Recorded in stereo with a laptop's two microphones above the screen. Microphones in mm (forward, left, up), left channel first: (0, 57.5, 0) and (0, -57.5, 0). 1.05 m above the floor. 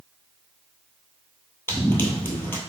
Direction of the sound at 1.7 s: 20° left (ahead or behind).